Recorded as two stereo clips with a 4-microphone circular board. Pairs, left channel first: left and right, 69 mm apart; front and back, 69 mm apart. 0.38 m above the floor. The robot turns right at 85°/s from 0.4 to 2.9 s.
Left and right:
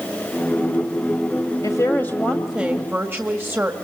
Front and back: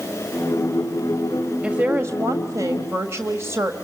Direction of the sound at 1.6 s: 110° left.